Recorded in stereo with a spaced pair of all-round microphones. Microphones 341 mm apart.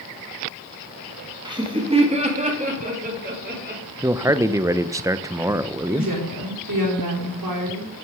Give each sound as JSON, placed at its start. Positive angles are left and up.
{"t": 1.4, "sound": "laughter", "side_deg": -10, "distance_m": 2.0}
{"t": 4.0, "sound": "a man speaking", "side_deg": -10, "distance_m": 0.5}
{"t": 5.9, "sound": "a woman speaking", "side_deg": -70, "distance_m": 4.0}